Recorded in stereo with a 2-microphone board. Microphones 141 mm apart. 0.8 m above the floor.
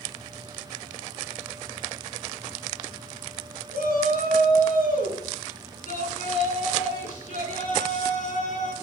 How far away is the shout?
About 8 m.